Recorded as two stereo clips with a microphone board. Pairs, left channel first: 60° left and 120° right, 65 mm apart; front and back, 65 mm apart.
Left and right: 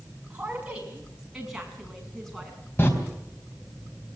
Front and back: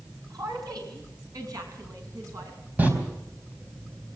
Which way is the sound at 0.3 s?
170° left.